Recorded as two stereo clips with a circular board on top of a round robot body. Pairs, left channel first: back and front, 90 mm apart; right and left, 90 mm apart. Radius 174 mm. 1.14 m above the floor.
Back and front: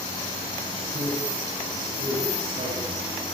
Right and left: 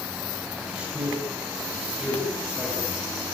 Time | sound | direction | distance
0.7 | a man speaking | 10° left | 9 m